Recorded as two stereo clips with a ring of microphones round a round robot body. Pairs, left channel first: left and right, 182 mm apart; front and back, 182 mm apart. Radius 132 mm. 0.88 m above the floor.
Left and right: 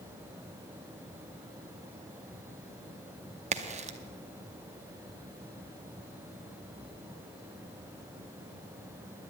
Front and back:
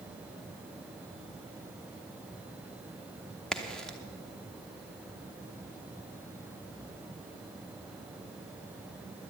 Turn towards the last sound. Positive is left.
turn(degrees=-85)